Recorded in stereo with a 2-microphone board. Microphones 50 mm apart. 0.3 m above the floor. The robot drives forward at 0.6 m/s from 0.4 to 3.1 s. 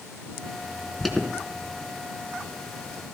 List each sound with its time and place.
1.0 s an alarm: 5° left (ahead or behind), 3 m